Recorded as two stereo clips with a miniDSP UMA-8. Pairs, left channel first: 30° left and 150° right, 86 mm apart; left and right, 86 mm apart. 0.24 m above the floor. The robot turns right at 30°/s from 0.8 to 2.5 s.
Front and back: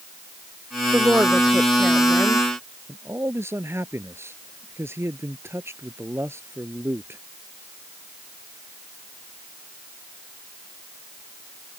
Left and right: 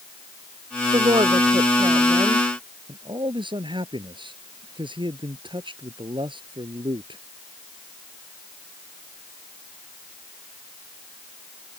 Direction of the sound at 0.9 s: 90° right.